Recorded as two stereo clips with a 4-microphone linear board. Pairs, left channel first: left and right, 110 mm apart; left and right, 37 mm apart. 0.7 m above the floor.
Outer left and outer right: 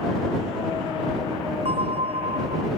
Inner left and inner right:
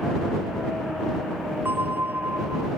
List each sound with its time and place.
1.6 s a bell: 70° right (ahead or behind)